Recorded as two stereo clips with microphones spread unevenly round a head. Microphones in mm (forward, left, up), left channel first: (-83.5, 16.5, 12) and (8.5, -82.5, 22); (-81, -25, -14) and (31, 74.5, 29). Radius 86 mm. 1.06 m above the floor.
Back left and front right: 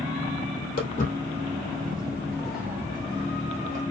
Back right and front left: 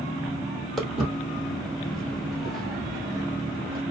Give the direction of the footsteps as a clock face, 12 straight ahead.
8 o'clock.